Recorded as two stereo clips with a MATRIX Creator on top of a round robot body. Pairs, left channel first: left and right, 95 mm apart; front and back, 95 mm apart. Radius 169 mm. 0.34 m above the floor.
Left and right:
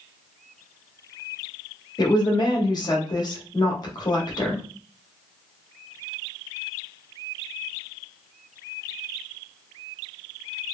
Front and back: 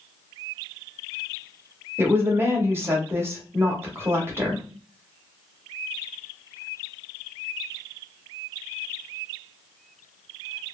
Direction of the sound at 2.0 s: 120° left.